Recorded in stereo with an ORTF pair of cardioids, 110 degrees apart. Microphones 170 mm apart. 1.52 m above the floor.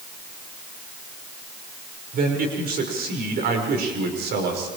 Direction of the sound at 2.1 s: 55° right.